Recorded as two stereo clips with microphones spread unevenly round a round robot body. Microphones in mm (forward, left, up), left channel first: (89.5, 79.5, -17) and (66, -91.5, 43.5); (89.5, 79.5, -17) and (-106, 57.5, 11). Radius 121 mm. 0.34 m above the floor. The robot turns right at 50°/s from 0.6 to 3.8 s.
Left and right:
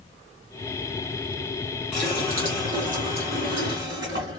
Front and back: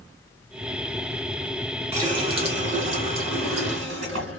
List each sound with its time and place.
1.9 s a running tap: 125° left, 1.7 m; by 4.4 s 140° right, 1.7 m